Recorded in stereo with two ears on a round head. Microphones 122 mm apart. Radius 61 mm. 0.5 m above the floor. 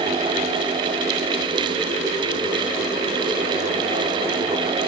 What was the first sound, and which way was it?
Only background noise.